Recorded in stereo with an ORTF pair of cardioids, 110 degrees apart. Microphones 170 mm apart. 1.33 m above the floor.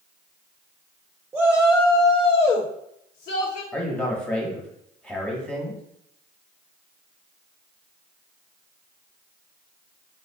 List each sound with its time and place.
1.3 s a shout: 15° right, 0.6 m; by 3.6 s 70° left, 1.1 m
3.7 s a man speaking: 5° left, 1.2 m